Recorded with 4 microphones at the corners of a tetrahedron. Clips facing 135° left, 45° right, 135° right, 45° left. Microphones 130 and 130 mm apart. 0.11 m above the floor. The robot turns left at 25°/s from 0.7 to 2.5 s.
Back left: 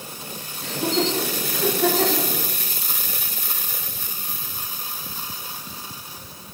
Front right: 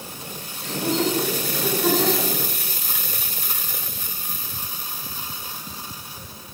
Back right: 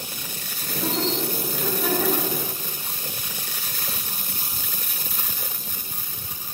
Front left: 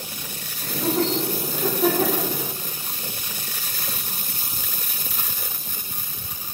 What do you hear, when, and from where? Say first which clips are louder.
0.6 s laughter: even, front left 4 dB; 135° left, 6 m; by 2.3 s 95° left, 6 m